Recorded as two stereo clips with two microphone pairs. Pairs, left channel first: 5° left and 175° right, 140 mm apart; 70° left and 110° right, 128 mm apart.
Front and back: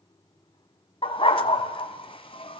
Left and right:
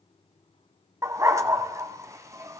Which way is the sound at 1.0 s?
45° right.